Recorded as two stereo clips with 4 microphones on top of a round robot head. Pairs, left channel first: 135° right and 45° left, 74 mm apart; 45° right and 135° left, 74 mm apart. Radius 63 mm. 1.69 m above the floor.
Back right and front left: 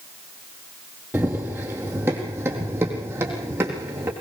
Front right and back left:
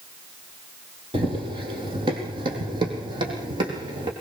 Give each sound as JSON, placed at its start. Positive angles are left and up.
{"t": 1.1, "sound": "running footsteps", "azimuth_deg": 110, "distance_m": 3.0}